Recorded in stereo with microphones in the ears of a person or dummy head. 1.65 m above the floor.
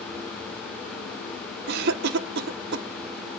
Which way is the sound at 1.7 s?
65° right (ahead or behind).